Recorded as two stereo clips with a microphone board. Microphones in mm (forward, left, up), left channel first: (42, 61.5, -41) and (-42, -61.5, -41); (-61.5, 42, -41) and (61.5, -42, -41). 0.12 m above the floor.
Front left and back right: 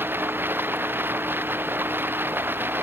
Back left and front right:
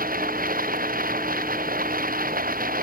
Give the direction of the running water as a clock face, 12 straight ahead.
2 o'clock.